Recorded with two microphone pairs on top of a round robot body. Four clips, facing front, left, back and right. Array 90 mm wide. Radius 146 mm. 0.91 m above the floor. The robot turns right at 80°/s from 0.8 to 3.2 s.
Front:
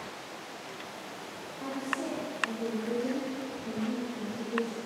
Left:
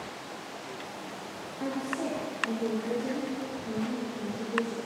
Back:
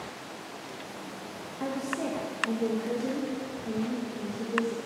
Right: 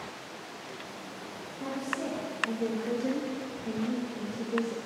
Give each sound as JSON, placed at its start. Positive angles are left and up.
{"t": 1.6, "sound": "a woman speaking", "azimuth_deg": 155, "distance_m": 2.0}